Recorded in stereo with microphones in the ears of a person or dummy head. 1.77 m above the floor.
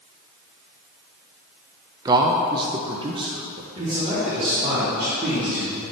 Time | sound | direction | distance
2.0 | a man speaking | 15° right (ahead or behind) | 0.6 m
3.8 | a man speaking | 20° right (ahead or behind) | 3.5 m